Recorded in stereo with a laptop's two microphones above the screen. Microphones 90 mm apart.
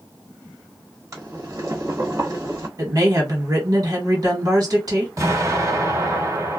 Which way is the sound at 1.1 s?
40° right (ahead or behind).